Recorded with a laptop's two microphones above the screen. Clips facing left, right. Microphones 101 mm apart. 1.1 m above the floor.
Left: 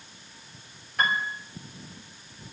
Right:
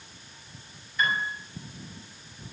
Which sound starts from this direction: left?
A piano, at 1.0 s.